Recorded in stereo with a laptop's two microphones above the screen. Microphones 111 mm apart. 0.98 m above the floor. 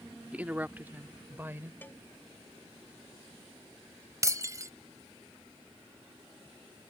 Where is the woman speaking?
10° right (ahead or behind); by 1.7 s 20° right (ahead or behind).